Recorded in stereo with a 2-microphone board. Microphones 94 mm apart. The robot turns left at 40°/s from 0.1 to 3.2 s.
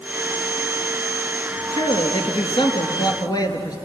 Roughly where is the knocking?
No knocking in this recording.